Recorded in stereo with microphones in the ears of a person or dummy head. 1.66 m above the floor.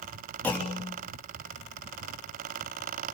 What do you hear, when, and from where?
0.4 s a clunk: 15° left (ahead or behind), 3 m